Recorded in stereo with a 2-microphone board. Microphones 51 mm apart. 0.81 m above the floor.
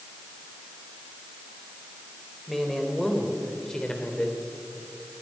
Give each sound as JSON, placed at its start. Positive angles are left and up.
{"t": 2.5, "sound": "a man speaking", "side_deg": 5, "distance_m": 4.0}